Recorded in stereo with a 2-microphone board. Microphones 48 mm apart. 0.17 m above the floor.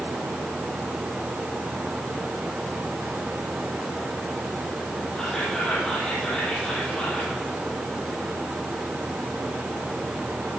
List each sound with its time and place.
5.2 s whispering: 20° left (ahead or behind), 6 m